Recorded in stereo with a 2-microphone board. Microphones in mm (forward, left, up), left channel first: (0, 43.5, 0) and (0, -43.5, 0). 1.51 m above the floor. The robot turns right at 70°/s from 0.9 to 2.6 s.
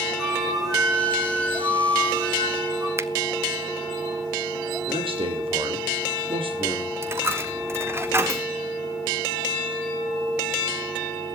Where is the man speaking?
80° right, 4 m.